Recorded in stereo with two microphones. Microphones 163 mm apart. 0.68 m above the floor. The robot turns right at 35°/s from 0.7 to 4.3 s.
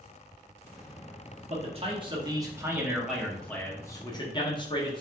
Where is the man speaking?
60° right, 1.1 m; by 5.0 s 40° left, 1.1 m.